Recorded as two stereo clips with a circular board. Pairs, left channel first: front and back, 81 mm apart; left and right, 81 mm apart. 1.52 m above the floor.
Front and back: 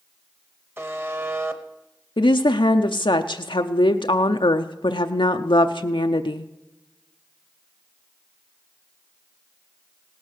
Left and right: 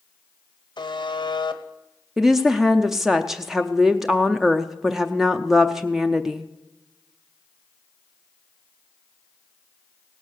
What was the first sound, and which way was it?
A buzzer, 120° left.